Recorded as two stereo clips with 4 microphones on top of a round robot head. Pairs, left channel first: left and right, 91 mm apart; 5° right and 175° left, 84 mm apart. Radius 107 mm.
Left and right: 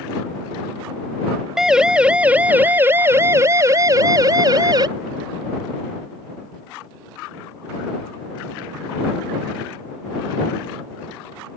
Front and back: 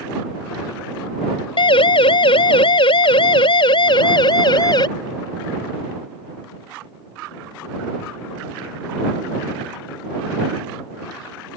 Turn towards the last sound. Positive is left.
turn(degrees=-40)